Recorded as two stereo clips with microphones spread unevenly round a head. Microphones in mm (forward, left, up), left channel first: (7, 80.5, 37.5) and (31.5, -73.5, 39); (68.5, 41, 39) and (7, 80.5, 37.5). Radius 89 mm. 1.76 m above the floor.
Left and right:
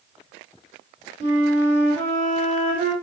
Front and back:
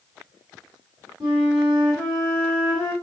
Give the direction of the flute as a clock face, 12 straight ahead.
4 o'clock.